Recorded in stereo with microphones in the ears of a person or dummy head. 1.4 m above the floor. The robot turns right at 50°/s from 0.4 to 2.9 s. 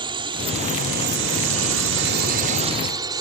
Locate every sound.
0.0 s a drone: 25° right (ahead or behind); by 3.2 s 20° right (ahead or behind)